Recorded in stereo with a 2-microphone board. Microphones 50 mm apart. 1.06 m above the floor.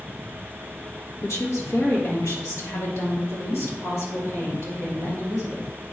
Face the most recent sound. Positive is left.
turn(degrees=80)